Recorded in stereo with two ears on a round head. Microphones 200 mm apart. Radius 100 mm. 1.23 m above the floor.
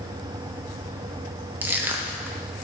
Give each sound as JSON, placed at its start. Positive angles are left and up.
{"t": 1.6, "sound": "crushing", "side_deg": -10, "distance_m": 0.6}